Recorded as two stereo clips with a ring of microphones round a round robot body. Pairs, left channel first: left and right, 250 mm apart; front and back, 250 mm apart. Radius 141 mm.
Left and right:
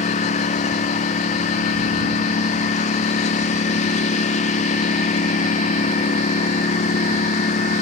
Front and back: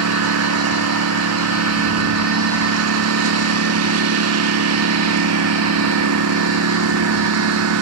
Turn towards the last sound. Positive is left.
turn(degrees=155)